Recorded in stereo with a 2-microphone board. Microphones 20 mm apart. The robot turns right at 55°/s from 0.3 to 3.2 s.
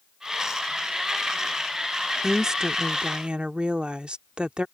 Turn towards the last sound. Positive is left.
turn(degrees=-105)